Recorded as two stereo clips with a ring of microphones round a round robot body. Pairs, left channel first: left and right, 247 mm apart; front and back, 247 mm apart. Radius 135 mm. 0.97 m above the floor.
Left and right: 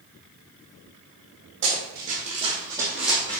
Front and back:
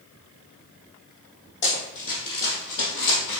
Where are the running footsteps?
40° right, 3 m; by 3.4 s 5° left, 2.5 m.